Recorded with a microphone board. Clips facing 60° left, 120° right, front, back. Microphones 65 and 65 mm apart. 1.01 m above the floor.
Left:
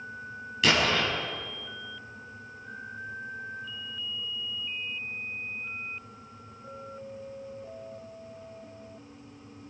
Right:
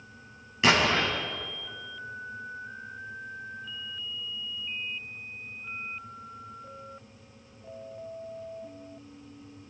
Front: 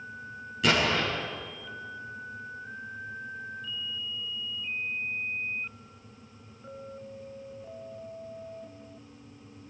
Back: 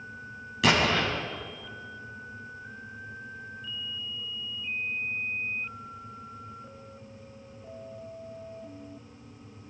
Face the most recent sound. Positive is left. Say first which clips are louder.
# right 2 dB, back 2 dB
turn(degrees=175)